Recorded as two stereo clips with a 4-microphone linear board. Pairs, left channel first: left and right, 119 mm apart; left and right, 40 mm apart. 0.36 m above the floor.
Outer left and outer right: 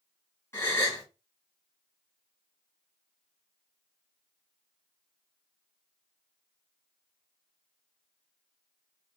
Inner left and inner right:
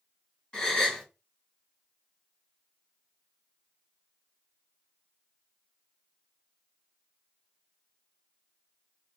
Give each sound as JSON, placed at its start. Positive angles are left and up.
{"t": 0.5, "sound": "a gasp", "side_deg": 20, "distance_m": 1.7}